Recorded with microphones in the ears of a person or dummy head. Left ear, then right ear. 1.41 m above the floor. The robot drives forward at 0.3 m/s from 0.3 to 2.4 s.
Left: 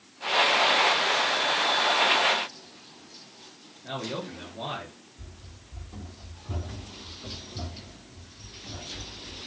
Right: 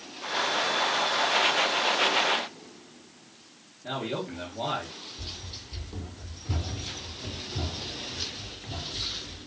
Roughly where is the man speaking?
Centre.